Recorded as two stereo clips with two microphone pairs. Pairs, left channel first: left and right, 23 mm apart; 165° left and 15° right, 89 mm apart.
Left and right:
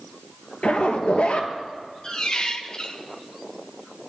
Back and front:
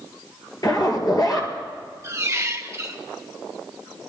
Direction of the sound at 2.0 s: 40° left.